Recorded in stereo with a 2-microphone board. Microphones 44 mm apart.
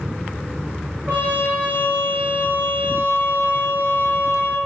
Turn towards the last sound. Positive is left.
turn(degrees=-70)  # may be behind; listen again after turning